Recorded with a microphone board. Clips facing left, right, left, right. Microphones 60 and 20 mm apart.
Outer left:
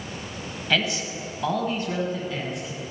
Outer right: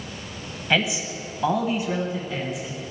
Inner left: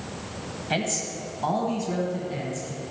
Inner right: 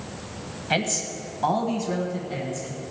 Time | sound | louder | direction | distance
0.7 | a man speaking | outer right 2 dB, inner right 2 dB | 15° right (ahead or behind) | 0.9 m